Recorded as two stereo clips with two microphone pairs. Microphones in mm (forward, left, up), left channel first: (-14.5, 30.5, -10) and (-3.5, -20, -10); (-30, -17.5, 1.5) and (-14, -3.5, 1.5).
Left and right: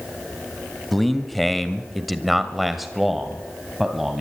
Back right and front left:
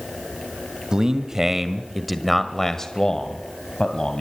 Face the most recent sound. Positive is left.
turn(degrees=-160)